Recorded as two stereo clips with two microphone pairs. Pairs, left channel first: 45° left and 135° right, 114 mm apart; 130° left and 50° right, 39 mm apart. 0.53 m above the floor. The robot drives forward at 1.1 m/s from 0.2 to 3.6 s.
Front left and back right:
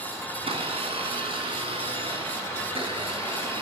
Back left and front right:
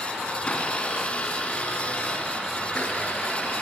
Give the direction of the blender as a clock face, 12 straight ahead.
6 o'clock.